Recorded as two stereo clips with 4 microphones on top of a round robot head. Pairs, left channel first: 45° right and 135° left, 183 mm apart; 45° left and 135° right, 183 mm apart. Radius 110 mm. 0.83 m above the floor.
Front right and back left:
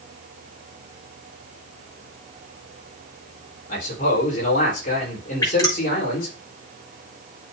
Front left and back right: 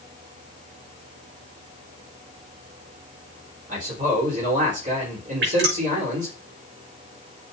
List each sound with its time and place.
3.7 s a man speaking: 90° right, 3.5 m
5.4 s dripping: 115° right, 6.5 m